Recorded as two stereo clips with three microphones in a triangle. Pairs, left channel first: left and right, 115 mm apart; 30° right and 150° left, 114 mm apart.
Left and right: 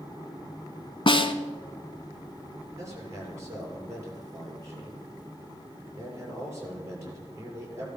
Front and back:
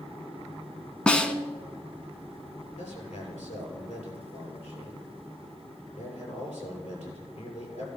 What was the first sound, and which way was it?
A snare drum, 50° left.